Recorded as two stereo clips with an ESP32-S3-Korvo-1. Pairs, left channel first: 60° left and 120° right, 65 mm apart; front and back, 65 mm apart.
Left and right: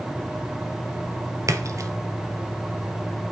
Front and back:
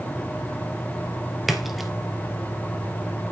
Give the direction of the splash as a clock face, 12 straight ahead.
3 o'clock.